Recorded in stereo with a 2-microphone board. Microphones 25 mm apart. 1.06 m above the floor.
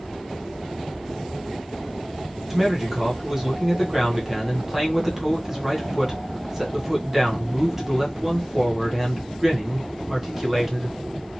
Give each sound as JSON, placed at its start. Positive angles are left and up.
{"t": 2.5, "sound": "a man speaking", "side_deg": -15, "distance_m": 0.9}